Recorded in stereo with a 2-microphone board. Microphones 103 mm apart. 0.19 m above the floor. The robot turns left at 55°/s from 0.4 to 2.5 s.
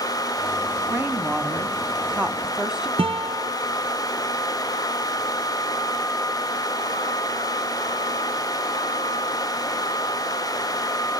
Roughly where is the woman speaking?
Centre.